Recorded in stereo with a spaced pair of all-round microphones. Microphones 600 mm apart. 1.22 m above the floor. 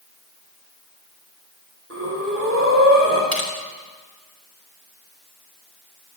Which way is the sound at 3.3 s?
80° left.